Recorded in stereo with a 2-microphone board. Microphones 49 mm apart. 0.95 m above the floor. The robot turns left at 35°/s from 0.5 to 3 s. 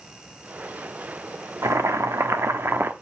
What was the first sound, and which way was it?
Boiling, 85° right.